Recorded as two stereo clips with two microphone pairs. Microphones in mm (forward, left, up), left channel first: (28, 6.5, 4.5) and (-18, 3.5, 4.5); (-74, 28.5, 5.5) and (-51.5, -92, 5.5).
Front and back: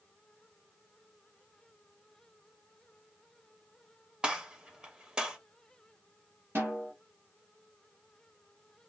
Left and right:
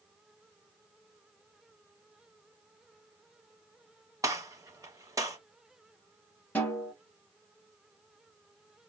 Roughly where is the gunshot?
Behind right.